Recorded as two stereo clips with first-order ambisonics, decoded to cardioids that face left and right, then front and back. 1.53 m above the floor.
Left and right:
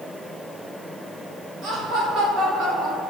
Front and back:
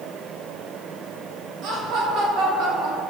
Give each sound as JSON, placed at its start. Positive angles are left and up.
{"t": 1.6, "sound": "laughter", "azimuth_deg": -140, "distance_m": 2.0}